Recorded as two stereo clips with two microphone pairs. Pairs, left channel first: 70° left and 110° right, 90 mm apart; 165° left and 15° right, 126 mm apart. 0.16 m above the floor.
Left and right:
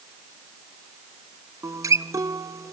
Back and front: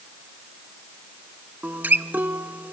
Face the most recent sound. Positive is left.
turn(degrees=-85)